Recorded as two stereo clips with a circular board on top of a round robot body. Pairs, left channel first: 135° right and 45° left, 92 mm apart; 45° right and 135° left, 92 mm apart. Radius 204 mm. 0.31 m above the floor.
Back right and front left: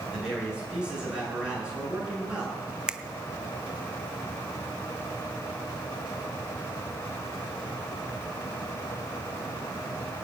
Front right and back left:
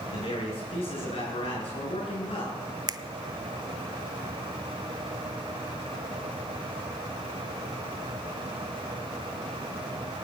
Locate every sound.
0.1 s a man speaking: 35° right, 8.5 m
2.9 s a finger snap: 125° left, 0.8 m